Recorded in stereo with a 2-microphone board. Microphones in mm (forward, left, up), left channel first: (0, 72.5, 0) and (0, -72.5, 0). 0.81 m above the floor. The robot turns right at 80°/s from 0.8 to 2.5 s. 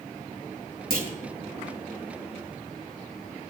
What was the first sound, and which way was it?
A clunk, 80° right.